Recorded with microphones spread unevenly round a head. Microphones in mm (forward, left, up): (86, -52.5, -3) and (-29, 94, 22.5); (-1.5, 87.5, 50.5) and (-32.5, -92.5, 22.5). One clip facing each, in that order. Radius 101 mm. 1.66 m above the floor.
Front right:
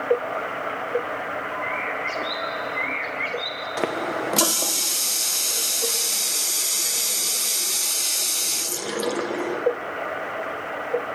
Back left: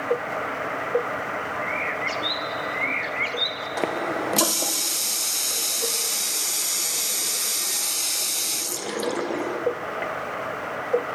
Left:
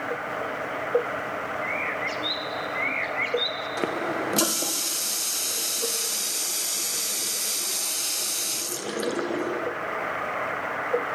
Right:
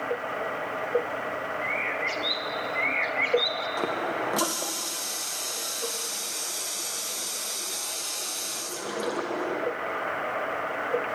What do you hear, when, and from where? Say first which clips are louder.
1.6 s a bird: even, left 1 dB; 165° left, 1.2 m
3.8 s a running tap: even, left 3 dB; 45° left, 0.7 m